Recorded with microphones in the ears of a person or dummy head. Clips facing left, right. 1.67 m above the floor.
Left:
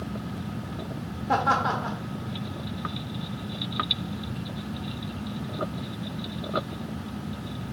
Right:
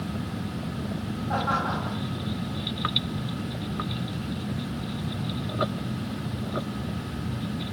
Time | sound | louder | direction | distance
1.3 | laughter | left 4 dB | 75° left (ahead or behind) | 1.0 m